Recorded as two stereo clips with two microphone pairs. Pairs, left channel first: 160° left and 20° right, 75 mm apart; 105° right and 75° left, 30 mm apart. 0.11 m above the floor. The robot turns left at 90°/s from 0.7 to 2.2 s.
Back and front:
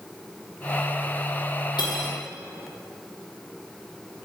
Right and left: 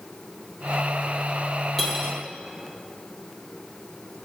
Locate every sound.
1.8 s cutlery clinking: 170° left, 1.9 m; by 2.1 s 135° left, 1.9 m